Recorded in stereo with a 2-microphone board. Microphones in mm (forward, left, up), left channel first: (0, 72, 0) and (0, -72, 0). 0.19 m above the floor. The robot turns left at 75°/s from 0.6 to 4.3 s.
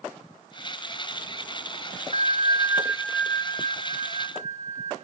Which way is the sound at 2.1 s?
110° right.